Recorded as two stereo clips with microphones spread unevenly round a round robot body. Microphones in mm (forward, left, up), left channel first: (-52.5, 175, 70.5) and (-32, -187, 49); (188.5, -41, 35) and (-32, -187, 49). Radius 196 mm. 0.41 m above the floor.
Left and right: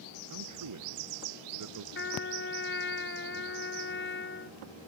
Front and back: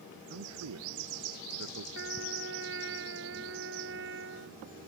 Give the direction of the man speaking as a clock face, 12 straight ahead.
4 o'clock.